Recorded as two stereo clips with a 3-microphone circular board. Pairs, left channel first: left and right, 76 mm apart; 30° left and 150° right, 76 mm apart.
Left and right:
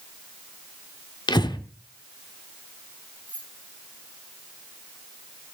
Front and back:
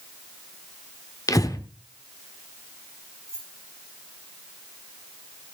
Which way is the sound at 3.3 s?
155° left.